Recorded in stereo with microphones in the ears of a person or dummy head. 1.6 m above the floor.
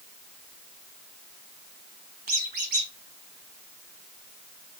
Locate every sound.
2.3 s a squeak: 45° right (ahead or behind), 1.1 m